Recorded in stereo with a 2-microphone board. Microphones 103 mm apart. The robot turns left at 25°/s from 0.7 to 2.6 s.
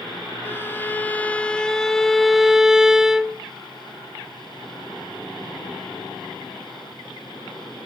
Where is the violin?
40° left, 0.6 m; by 3.4 s 10° right, 0.6 m.